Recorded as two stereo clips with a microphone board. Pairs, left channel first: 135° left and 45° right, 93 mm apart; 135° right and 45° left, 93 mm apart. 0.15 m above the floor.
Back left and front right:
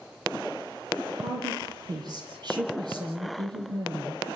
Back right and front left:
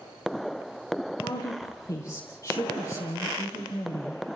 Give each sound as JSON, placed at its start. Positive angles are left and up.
{"t": 1.2, "sound": "a woman speaking", "azimuth_deg": -85, "distance_m": 6.5}